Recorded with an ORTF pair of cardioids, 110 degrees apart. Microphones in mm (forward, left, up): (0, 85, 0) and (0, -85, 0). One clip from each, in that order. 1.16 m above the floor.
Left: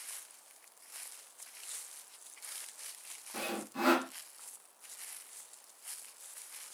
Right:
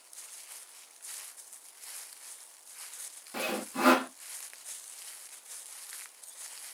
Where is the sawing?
25° right, 0.6 m.